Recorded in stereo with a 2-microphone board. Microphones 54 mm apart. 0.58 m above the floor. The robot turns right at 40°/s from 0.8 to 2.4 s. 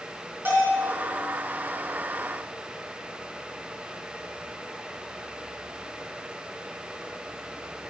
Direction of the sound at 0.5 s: 40° right (ahead or behind).